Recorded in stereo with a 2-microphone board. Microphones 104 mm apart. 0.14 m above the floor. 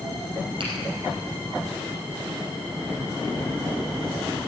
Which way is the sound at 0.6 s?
50° right (ahead or behind).